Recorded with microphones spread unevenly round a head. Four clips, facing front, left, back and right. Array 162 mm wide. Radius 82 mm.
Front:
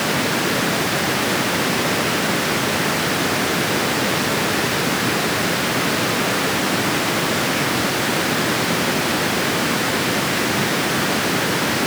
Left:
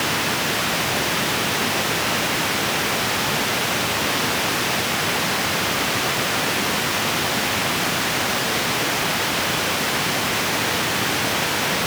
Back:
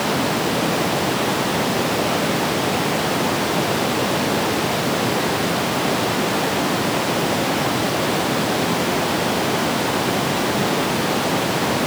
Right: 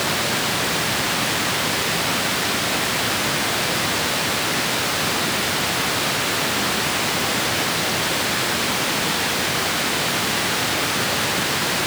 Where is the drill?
No drill in this recording.